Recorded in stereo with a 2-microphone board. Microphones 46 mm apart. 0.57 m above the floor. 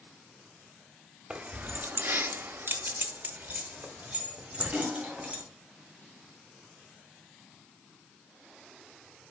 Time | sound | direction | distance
1.3 | keys jangling | 25° right (ahead or behind) | 1.0 m